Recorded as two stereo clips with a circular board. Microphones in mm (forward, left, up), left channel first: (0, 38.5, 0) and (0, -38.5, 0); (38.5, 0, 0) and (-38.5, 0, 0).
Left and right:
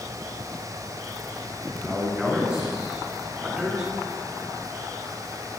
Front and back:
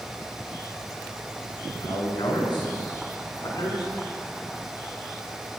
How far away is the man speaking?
About 7.5 m.